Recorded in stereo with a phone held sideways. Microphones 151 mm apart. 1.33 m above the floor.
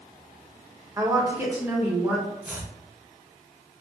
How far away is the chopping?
About 1.8 m.